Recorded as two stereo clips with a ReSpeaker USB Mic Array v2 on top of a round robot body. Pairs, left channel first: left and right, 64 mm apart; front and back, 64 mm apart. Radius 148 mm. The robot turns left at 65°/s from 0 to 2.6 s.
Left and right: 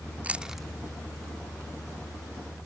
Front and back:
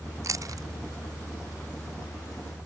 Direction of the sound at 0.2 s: 155° right.